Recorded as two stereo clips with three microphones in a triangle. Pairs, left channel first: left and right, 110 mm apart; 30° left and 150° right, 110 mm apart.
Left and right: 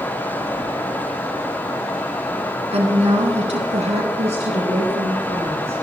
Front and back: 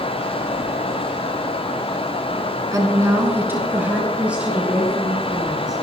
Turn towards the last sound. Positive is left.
turn(degrees=-65)